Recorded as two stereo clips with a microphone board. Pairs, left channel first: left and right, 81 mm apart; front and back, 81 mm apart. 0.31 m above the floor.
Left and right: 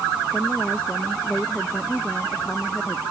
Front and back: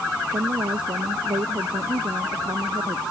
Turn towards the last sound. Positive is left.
turn(degrees=170)